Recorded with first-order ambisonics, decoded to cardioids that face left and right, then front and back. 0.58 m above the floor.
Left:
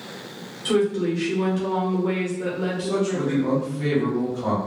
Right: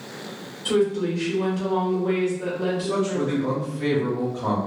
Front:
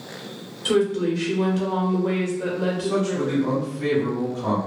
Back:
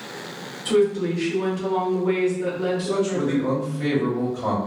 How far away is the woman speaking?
About 1.2 m.